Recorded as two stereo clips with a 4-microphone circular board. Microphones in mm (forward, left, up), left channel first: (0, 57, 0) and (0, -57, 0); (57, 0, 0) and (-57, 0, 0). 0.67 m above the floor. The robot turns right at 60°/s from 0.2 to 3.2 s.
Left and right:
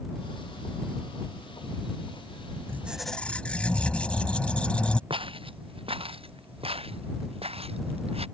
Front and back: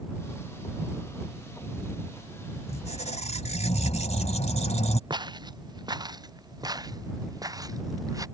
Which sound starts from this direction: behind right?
Footsteps, at 5.1 s.